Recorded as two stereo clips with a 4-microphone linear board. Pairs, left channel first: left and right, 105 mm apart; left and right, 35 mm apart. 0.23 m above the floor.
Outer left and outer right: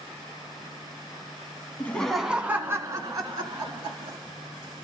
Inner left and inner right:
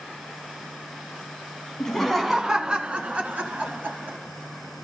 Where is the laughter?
15° left (ahead or behind), 1.4 m; by 4.2 s 50° right (ahead or behind), 3.5 m.